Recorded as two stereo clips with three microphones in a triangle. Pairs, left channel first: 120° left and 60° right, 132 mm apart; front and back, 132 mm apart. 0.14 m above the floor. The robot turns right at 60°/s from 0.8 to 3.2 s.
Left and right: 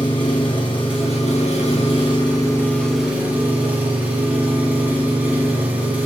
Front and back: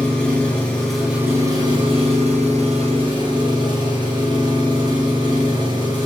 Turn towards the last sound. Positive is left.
turn(degrees=-135)